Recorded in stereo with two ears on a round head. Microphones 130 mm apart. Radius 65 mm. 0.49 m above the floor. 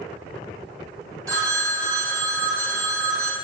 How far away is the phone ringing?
About 2.5 m.